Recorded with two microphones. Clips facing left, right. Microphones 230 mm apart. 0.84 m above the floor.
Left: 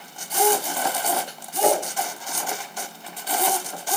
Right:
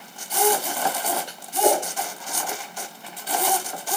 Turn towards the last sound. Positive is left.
turn(degrees=75)  # may be behind; listen again after turning